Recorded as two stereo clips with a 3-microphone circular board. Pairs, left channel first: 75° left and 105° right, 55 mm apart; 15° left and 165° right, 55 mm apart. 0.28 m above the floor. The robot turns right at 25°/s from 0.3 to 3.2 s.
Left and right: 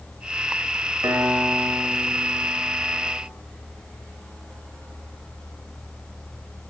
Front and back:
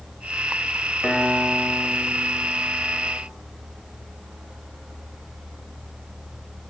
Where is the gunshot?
No gunshot in this recording.